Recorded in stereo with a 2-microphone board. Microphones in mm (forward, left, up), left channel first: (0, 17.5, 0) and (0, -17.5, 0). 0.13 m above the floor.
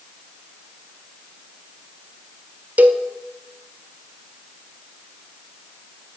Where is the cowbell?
50° right (ahead or behind), 0.9 m.